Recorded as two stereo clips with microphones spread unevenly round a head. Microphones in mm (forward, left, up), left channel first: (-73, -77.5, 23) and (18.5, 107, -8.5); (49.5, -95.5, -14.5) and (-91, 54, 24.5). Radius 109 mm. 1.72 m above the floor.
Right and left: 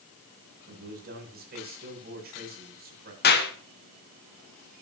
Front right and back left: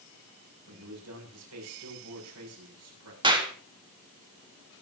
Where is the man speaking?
110° left, 7.5 m.